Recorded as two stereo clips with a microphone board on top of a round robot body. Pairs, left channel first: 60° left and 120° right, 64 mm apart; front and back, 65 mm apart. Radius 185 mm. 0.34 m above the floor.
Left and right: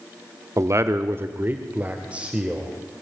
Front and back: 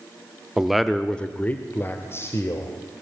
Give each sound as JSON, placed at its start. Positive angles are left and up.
{"t": 0.6, "sound": "a man speaking", "azimuth_deg": -100, "distance_m": 1.4}